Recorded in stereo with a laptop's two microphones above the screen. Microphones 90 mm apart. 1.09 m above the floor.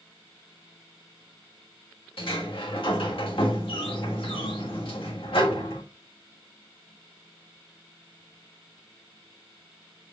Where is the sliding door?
70° left (ahead or behind), 1.6 m.